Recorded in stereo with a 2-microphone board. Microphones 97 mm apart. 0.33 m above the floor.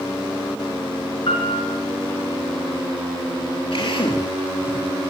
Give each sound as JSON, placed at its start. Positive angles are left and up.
{"t": 1.3, "sound": "a piano", "side_deg": 60, "distance_m": 5.0}
{"t": 3.7, "sound": "a drill", "side_deg": 60, "distance_m": 7.5}